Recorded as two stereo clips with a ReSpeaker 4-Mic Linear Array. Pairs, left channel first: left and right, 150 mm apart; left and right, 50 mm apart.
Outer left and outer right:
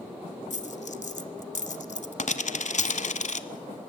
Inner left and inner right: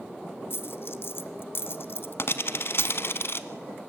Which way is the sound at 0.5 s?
55° left (ahead or behind).